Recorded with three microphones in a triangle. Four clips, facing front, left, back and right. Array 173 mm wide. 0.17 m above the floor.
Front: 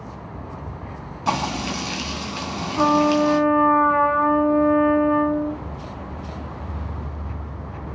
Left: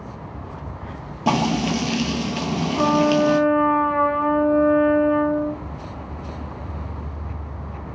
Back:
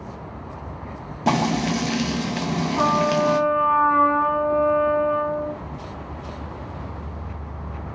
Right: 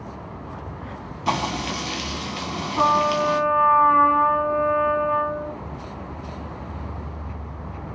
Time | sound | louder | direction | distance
1.3 | frying | left 5 dB, back 3 dB | 135° left | 0.6 m
2.8 | a trumpet | left 1 dB, front 3 dB | 90° right | 1.1 m